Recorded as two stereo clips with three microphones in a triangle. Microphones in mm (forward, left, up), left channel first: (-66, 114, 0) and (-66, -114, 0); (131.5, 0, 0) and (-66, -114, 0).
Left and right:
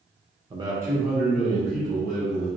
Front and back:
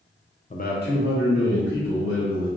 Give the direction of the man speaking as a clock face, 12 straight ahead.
1 o'clock.